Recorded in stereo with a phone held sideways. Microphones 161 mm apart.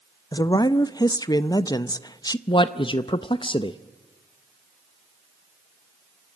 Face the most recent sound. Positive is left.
turn(degrees=30)  # may be behind; listen again after turning